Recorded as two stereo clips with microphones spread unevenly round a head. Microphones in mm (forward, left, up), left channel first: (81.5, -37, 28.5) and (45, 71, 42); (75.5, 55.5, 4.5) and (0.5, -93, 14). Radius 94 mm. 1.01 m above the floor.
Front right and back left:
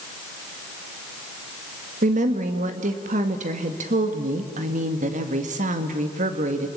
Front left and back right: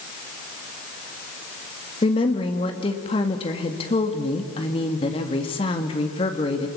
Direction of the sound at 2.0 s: 125° left.